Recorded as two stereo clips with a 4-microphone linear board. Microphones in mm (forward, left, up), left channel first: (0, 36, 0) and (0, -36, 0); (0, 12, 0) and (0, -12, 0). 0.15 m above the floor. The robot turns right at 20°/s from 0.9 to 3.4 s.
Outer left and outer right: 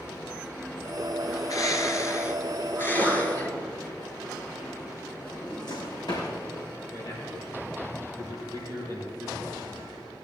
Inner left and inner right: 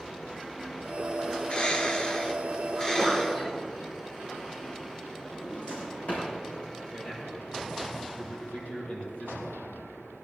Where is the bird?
120° left, 1.3 m; by 3.6 s 160° left, 1.3 m.